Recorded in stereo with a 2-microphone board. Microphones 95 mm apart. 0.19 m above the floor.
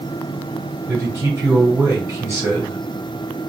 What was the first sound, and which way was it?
A man speaking, 30° right (ahead or behind).